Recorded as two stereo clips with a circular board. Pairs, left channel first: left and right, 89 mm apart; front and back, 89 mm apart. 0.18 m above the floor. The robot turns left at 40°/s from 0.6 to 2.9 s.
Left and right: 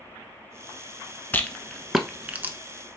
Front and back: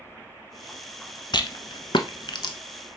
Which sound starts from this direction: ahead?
A rattle, at 1.3 s.